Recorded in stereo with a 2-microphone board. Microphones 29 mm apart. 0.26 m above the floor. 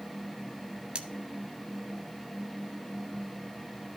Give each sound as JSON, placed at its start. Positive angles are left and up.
{"t": 0.9, "sound": "cutlery clinking", "side_deg": -35, "distance_m": 0.8}